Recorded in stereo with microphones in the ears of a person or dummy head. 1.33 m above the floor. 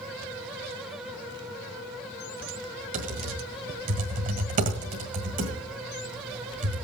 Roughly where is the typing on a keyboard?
Right.